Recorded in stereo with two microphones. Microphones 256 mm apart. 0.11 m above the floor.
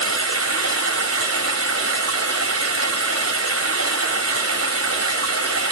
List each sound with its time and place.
0.0 s running water: 70° right (ahead or behind), 1.8 m